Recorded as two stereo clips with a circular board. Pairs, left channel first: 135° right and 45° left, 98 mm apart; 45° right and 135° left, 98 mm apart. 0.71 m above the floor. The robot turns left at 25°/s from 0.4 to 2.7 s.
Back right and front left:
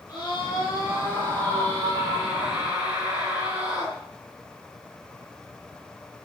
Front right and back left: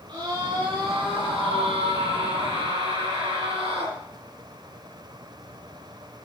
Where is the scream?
175° left, 8.5 m; by 4.0 s 120° left, 8.5 m.